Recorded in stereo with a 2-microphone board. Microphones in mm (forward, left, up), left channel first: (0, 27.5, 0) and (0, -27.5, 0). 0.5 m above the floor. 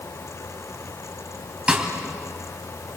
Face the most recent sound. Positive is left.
turn(degrees=-20)  # may be behind; listen again after turning